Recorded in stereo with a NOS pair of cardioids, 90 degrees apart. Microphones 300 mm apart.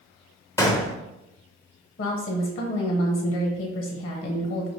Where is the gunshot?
10° left, 0.6 m.